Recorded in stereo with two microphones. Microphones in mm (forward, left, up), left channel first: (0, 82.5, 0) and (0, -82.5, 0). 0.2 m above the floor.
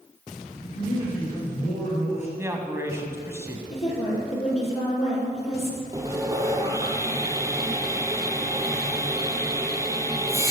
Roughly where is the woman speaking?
Left.